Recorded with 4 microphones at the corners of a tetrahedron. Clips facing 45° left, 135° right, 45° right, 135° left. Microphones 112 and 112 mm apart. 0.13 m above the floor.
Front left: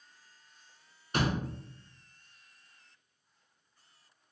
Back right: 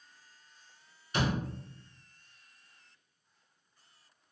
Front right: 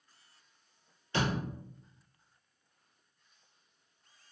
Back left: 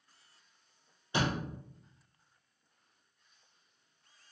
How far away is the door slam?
About 1.8 m.